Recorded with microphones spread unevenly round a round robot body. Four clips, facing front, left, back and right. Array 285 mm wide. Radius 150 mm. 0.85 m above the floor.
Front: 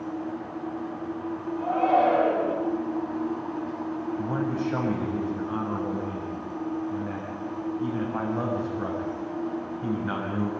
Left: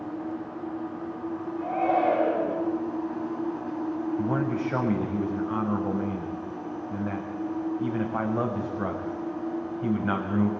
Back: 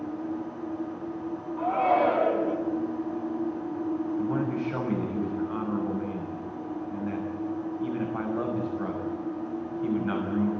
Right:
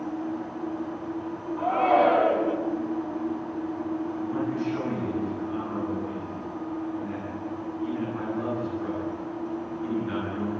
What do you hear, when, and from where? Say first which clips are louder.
1.6 s a shout: right 4 dB, front 1 dB; 95° right, 9.5 m
4.2 s a man speaking: left 2 dB, even; 75° left, 6 m